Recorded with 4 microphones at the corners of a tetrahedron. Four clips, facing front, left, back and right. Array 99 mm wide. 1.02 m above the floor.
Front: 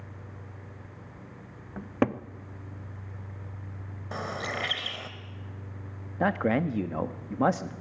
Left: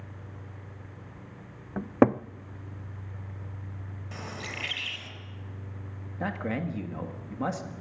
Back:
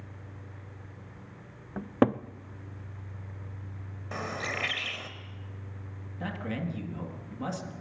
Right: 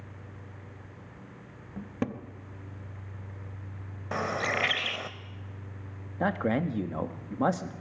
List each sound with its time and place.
1.8 s a cupboard door: 100° left, 0.5 m
4.1 s a bird: 75° right, 1.9 m
6.2 s a man speaking: 25° right, 1.6 m